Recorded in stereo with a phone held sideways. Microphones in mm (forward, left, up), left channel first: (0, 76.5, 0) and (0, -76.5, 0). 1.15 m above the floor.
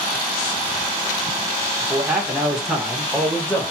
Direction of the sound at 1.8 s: 20° right (ahead or behind).